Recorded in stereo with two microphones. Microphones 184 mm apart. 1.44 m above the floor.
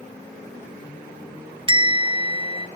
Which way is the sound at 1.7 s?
25° right (ahead or behind).